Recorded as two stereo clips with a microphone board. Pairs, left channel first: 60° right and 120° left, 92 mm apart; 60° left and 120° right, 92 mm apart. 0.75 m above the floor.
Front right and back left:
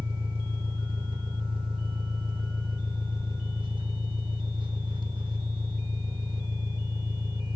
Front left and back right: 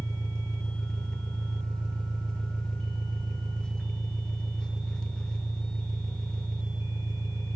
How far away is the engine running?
About 2 m.